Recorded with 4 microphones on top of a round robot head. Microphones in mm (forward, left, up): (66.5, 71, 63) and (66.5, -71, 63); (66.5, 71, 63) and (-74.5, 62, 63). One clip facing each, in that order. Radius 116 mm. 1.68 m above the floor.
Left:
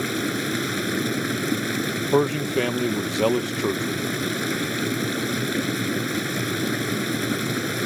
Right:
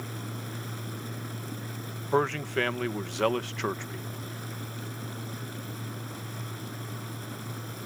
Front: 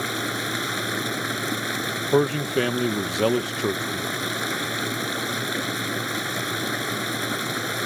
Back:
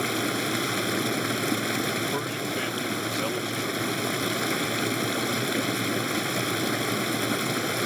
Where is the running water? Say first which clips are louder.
Left 14 dB, back 2 dB; 105° left.